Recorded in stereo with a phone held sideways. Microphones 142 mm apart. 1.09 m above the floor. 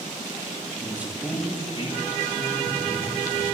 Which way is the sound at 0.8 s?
20° right (ahead or behind).